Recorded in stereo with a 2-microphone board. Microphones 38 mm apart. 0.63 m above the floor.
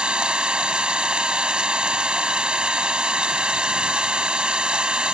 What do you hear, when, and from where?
0.0 s an engine running: 25° right (ahead or behind)